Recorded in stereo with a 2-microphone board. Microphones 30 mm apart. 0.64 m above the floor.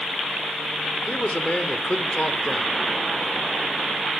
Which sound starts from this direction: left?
A man speaking, at 1.1 s.